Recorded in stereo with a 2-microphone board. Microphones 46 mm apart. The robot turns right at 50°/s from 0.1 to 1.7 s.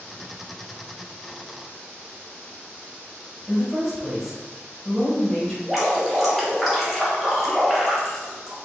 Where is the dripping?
10° right (ahead or behind), 1.2 m.